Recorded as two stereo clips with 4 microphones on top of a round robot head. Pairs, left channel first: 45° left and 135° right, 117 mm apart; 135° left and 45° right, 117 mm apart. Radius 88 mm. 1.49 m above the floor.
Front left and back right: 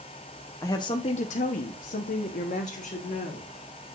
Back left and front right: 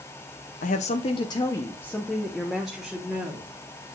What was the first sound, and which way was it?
A woman speaking, 115° left.